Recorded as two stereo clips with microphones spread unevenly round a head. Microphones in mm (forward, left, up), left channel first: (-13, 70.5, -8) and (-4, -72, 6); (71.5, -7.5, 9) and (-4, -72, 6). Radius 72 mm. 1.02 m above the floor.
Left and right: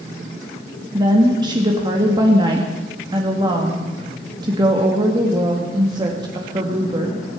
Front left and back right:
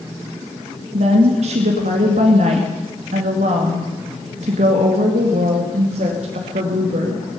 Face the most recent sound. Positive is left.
turn(degrees=-150)